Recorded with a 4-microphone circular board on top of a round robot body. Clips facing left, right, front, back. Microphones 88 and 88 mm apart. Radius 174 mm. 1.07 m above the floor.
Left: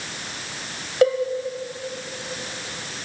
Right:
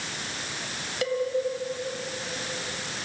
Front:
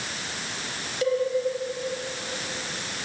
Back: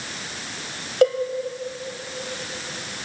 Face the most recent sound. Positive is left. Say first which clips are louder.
# left 10 dB, back 6 dB
turn(degrees=145)